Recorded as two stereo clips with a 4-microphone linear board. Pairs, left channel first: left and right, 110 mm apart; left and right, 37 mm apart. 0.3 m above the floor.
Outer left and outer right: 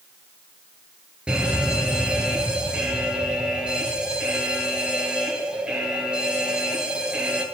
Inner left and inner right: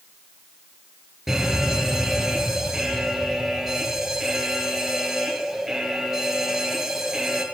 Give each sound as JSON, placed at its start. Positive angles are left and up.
{"t": 1.3, "sound": "an alarm", "side_deg": -10, "distance_m": 7.5}